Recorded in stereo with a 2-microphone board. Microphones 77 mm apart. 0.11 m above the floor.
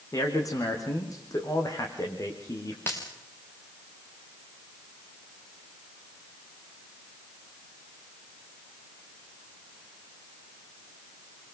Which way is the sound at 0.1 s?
50° left (ahead or behind).